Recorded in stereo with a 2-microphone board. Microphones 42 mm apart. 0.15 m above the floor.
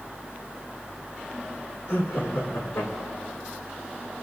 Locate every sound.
1.9 s laughter: 80° left, 8 m